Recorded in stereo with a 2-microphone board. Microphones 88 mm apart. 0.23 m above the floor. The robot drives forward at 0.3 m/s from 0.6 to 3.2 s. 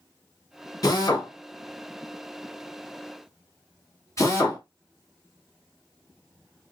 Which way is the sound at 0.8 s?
45° left (ahead or behind).